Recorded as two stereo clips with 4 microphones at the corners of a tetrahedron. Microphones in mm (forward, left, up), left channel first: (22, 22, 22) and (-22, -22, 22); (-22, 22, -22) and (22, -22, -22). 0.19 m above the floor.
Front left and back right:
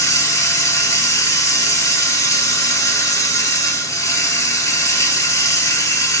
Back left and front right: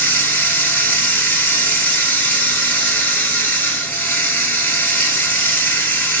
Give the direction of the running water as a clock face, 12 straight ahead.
9 o'clock.